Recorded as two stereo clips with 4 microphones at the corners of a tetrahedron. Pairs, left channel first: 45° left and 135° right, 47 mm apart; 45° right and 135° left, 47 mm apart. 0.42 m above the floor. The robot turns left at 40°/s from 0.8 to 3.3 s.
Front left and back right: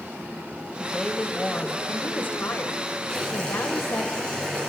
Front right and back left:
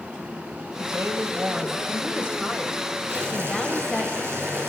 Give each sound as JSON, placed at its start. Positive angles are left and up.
{"t": 0.8, "sound": "a woman speaking", "azimuth_deg": 135, "distance_m": 1.7}
{"t": 3.1, "sound": "boiling", "azimuth_deg": 125, "distance_m": 5.5}